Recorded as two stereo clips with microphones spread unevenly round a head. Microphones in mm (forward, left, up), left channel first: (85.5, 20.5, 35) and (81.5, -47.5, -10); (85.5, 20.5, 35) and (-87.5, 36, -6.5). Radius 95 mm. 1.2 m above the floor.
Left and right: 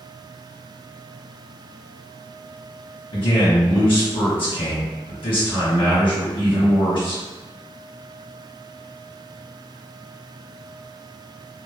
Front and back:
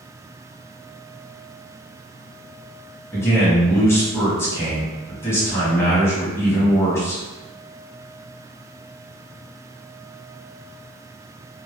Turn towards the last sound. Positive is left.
turn(degrees=75)